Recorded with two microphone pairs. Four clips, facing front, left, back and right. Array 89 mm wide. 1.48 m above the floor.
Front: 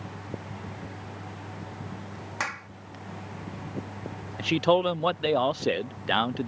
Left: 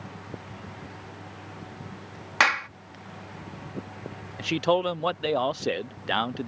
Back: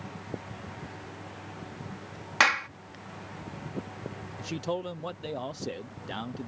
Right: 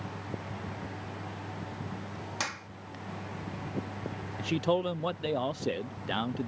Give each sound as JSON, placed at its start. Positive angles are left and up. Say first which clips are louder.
{"t": 2.4, "sound": "a clap", "louder": "left 16 dB, back 9 dB", "azimuth_deg": 115}
{"t": 4.4, "sound": "a man speaking", "louder": "left 5 dB, front 11 dB", "azimuth_deg": 35}